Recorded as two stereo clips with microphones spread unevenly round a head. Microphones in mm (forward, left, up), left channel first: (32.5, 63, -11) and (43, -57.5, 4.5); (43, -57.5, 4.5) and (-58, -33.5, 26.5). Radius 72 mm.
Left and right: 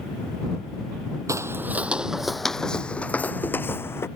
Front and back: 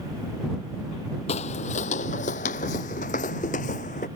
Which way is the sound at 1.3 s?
30° right.